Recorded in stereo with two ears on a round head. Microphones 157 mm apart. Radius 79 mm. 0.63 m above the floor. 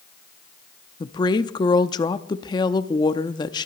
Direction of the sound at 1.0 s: 25° left (ahead or behind).